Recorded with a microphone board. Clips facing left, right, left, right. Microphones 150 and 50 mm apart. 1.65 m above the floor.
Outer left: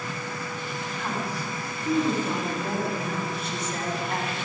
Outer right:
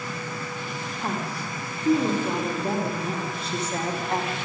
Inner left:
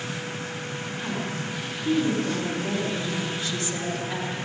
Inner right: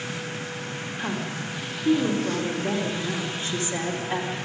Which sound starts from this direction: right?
A woman speaking, at 1.0 s.